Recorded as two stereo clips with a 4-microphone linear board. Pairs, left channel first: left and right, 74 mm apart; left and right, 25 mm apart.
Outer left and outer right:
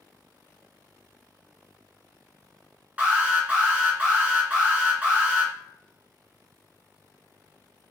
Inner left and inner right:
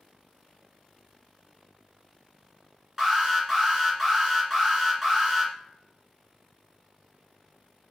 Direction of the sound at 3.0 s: 20° right (ahead or behind).